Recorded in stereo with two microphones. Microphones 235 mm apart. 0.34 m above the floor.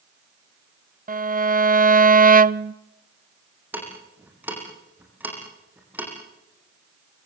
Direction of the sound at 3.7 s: 5° right (ahead or behind).